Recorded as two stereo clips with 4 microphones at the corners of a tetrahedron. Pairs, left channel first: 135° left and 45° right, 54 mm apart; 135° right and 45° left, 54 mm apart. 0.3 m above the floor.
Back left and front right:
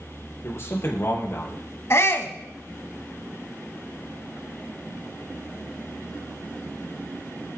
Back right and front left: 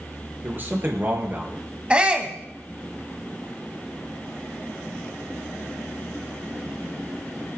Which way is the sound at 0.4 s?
95° left.